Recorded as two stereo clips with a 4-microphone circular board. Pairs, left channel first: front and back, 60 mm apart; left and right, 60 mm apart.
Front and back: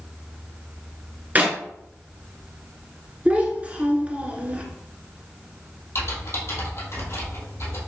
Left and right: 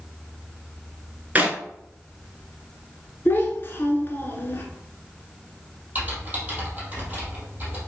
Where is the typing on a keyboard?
30° right, 2.5 m.